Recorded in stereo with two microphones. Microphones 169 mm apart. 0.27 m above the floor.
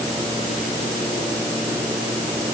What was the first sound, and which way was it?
Only background noise.